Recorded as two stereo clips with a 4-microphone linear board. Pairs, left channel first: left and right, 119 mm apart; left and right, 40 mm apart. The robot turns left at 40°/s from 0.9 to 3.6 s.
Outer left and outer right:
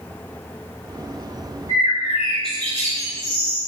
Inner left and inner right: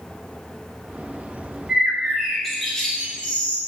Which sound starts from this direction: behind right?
A bird, at 1.7 s.